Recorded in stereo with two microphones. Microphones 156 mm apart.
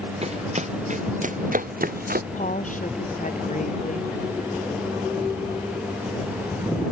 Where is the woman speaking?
55° left (ahead or behind).